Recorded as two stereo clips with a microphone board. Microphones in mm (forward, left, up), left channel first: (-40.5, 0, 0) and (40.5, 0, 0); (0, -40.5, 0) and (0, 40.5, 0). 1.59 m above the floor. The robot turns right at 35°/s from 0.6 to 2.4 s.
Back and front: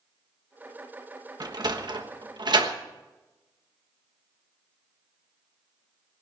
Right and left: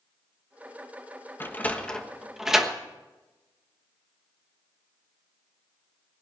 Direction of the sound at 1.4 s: 30° right.